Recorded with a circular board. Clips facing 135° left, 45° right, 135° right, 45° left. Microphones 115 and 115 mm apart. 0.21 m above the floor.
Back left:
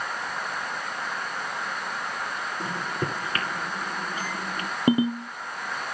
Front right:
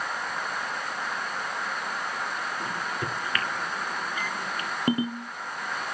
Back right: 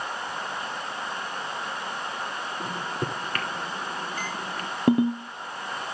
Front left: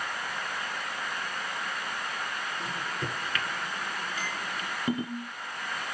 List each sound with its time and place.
2.6 s a microwave: 170° right, 2.5 m
4.9 s a ringtone: 155° right, 2.5 m